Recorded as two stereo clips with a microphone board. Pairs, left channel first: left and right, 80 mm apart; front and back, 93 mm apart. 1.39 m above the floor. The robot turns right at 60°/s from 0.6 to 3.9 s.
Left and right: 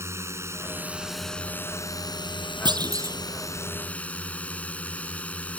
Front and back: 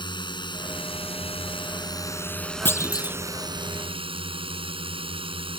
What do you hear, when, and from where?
0.0 s a drone: 35° right; by 5.6 s 165° left
2.6 s a clunk: 65° right; by 3.2 s 35° right